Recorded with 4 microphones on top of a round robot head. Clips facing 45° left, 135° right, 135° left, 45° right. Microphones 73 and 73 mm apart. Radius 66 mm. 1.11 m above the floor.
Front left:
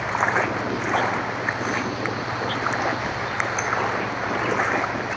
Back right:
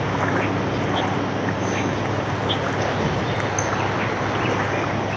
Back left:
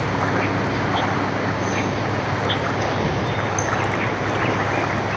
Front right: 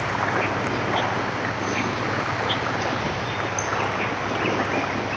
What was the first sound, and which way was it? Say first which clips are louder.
An insect: even, back left 2 dB; 175° right.